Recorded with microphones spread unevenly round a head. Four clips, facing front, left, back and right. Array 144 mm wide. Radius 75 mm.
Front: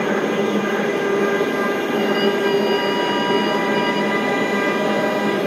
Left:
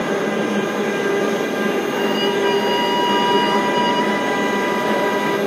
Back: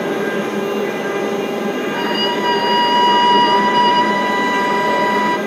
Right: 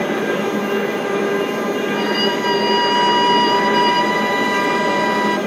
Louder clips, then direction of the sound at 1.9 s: Even, front 1 dB; 170° right.